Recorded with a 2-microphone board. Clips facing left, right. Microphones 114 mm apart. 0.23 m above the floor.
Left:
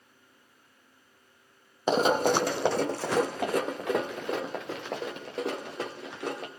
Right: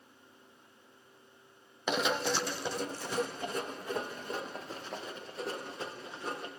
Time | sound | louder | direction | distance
1.9 | running footsteps | left 8 dB | 35° left (ahead or behind) | 0.5 m